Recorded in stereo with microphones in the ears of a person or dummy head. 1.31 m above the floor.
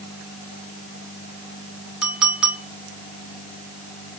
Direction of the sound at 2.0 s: Centre (ahead or behind).